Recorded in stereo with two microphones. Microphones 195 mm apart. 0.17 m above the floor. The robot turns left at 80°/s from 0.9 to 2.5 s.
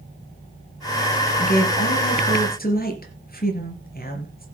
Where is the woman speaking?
140° left, 3.5 m; by 4.5 s 50° left, 3.5 m.